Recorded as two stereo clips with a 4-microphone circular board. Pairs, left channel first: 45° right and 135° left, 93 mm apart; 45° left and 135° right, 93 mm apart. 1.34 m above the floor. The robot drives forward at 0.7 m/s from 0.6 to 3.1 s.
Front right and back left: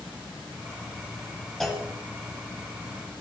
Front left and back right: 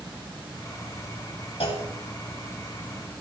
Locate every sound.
1.6 s a clunk: 45° left, 2.5 m